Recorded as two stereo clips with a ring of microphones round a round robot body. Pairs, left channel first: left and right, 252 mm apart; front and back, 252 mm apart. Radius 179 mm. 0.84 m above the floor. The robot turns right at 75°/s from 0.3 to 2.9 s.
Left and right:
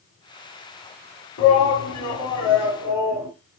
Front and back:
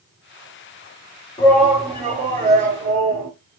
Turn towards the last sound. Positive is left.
turn(degrees=-175)